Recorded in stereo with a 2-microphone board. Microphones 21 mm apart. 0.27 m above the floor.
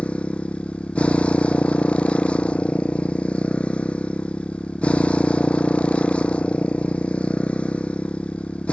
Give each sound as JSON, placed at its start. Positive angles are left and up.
{"t": 0.0, "sound": "a motorcycle", "side_deg": 85}